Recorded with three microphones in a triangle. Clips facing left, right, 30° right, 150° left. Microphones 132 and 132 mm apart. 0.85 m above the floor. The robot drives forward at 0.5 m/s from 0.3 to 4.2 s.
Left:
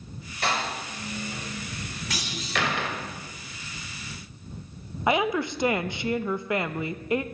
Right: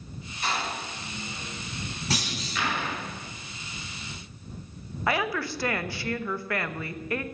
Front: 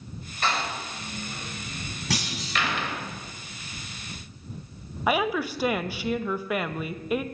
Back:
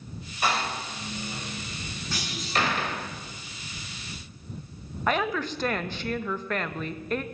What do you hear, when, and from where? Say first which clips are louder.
0.4 s a door slam: left 2 dB, back 1 dB; 70° left, 2.5 m; by 3.0 s 105° left, 2.5 m
2.1 s a clunk: even, even; 35° right, 8 m
5.1 s a woman speaking: left 4 dB, front 2 dB; 40° left, 0.7 m